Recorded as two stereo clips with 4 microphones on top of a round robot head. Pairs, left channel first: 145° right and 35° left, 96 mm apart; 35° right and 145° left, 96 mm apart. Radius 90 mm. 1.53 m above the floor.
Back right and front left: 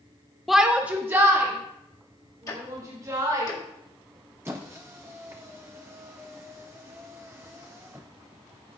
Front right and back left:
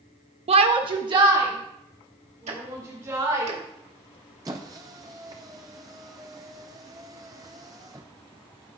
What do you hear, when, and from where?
0.5 s a shout: 125° left, 0.6 m; by 3.5 s 85° left, 3 m
2.5 s ticking: 160° left, 1.7 m
4.5 s a squeak: 95° left, 0.5 m